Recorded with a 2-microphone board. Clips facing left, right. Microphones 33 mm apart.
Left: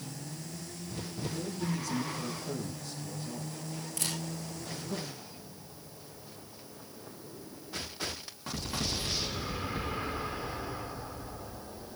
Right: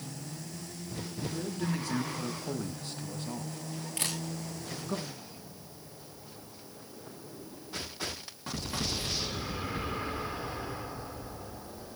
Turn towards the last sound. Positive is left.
turn(degrees=-45)  # may be behind; listen again after turning